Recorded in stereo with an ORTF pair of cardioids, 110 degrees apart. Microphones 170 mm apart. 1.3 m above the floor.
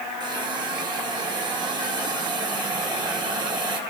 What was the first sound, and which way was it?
A hiss, 25° right.